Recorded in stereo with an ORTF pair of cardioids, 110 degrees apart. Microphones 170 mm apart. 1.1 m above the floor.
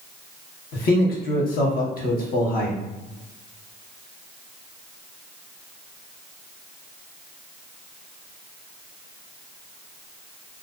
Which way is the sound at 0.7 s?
60° left.